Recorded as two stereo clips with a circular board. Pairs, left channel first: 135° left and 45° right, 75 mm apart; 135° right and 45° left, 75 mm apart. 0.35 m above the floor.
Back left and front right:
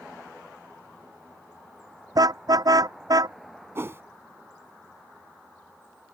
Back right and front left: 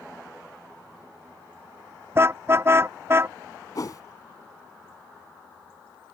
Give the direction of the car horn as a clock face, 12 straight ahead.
12 o'clock.